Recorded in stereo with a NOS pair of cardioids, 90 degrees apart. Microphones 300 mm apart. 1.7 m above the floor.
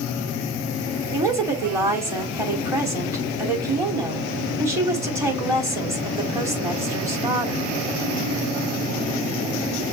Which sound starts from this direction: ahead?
A woman speaking, at 1.1 s.